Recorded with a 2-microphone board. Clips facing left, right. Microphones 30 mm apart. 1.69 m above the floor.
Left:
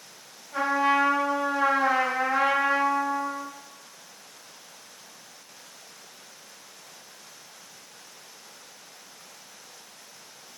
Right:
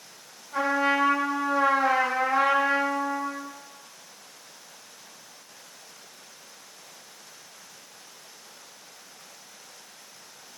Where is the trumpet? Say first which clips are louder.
Left 1 dB; 20° right (ahead or behind), 1.5 m.